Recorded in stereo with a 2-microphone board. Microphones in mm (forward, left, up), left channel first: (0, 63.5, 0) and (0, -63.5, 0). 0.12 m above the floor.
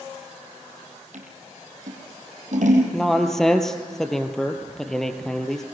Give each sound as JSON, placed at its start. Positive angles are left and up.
{"t": 1.1, "sound": "scissors", "side_deg": -70, "distance_m": 4.5}
{"t": 2.9, "sound": "a man speaking", "side_deg": 5, "distance_m": 2.5}